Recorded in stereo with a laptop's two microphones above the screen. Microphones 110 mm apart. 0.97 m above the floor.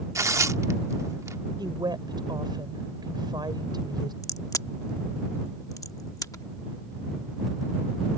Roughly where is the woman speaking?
Right.